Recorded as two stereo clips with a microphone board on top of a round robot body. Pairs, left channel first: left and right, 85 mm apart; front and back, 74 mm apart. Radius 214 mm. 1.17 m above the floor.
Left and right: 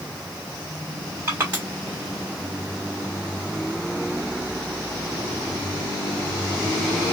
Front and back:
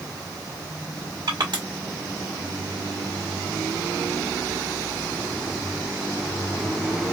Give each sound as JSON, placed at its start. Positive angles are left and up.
{"t": 1.3, "sound": "crushing", "azimuth_deg": -155, "distance_m": 1.4}